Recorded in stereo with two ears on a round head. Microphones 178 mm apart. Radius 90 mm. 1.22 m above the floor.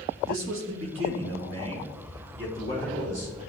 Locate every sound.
0.3 s a man speaking: 75° right (ahead or behind), 2.0 m; by 3.4 s 60° right (ahead or behind), 5 m